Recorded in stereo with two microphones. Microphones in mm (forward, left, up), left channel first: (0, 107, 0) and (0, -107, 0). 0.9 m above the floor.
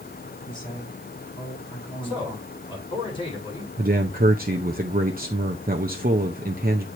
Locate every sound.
0.5 s a man speaking: 20° left (ahead or behind), 5.5 m
2.0 s a man speaking: 25° left (ahead or behind), 6 m
3.8 s a man speaking: 45° right (ahead or behind), 0.7 m